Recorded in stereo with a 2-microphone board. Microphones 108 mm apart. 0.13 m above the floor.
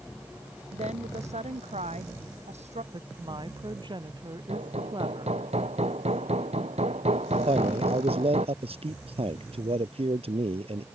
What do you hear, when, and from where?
0.7 s a woman speaking: 75° right (ahead or behind)
2.9 s a woman speaking: 40° right (ahead or behind)
4.5 s hammering: 65° right (ahead or behind)
7.5 s a man speaking: 60° right (ahead or behind)